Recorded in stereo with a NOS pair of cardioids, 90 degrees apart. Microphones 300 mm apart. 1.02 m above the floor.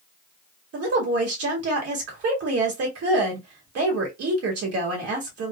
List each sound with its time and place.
0.7 s a woman speaking: 55° right, 1.8 m